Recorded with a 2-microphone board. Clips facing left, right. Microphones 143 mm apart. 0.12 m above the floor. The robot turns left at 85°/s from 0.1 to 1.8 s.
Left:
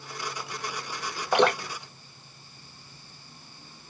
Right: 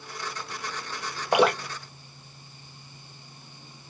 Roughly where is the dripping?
Centre.